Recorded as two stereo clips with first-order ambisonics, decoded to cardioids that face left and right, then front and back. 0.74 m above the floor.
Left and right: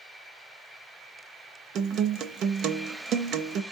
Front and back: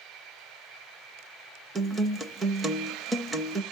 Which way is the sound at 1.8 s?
115° right.